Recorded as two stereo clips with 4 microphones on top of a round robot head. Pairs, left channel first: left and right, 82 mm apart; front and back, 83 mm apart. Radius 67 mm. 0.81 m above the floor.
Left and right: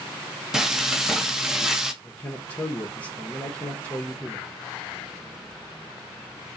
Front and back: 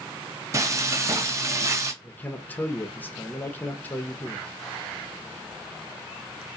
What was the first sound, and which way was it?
Frying, 170° right.